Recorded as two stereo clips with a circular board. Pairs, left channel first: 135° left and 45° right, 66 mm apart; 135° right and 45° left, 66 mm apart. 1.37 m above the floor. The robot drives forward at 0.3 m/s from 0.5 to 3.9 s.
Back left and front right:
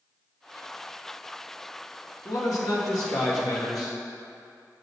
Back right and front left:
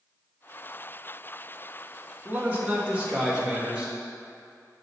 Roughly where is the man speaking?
Left.